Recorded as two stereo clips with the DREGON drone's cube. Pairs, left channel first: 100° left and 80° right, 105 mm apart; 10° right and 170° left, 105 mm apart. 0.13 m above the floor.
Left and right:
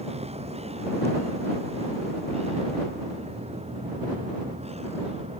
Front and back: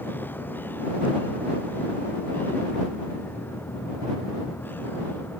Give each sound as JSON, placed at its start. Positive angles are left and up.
{"t": 0.0, "sound": "a vehicle", "azimuth_deg": -85}